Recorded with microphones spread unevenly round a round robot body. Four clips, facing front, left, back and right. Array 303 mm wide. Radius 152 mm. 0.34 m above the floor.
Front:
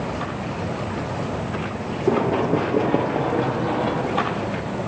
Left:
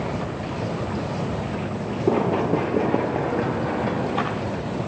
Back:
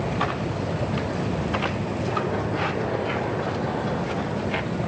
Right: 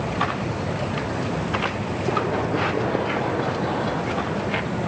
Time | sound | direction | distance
2.1 | running footsteps | 45° left | 2.5 m